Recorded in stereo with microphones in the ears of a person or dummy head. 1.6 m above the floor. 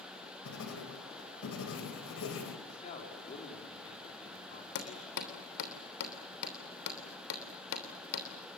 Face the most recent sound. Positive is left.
turn(degrees=60)  # may be behind; listen again after turning